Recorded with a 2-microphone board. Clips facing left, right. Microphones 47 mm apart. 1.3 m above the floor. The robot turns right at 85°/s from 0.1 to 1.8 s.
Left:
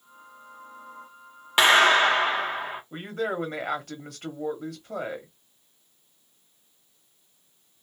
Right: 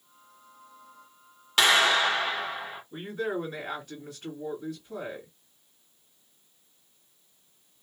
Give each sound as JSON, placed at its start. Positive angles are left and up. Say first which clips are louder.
{"t": 1.6, "sound": "a clap", "louder": "left 4 dB", "side_deg": 20, "distance_m": 0.7}
{"t": 2.9, "sound": "a woman speaking", "louder": "left 1 dB", "side_deg": 60, "distance_m": 1.1}